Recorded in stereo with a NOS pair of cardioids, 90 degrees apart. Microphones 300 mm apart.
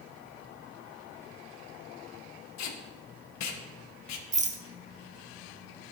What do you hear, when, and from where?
2.6 s tape being pulled: 65° left, 1.5 m
4.3 s a rattle: 25° right, 1.2 m